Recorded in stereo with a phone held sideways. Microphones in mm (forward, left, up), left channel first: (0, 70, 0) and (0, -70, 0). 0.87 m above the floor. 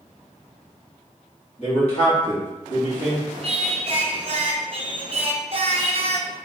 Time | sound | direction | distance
1.6 | a man speaking | 50° left (ahead or behind) | 1.8 m
3.4 | singing | 45° right (ahead or behind) | 0.6 m